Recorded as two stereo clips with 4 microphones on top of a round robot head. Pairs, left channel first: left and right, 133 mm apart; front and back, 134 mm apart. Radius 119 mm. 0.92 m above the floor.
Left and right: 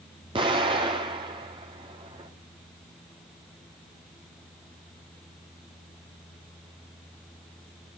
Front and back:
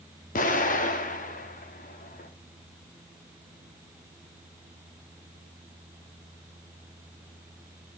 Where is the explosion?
30° right, 2.5 m.